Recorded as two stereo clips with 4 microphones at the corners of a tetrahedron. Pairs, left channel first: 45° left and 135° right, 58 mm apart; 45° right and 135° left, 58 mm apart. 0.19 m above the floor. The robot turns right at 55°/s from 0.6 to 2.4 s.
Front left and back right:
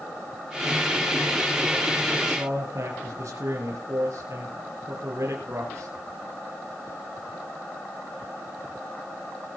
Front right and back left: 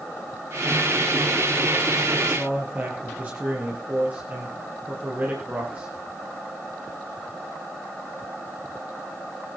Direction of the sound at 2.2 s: 175° right.